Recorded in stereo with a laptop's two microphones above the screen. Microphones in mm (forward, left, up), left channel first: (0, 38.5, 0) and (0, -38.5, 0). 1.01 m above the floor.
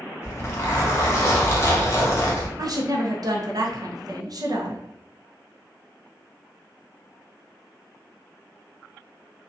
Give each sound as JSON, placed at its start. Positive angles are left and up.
{"t": 0.2, "sound": "a zipper", "side_deg": 35, "distance_m": 0.7}
{"t": 2.6, "sound": "a woman speaking", "side_deg": -55, "distance_m": 0.5}